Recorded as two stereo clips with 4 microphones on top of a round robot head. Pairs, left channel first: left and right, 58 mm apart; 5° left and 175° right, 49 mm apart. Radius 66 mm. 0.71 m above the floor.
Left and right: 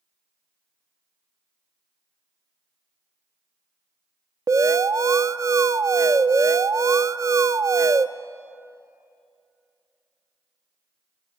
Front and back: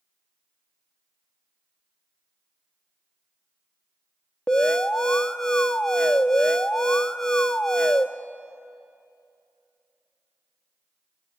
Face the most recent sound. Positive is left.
turn(degrees=-70)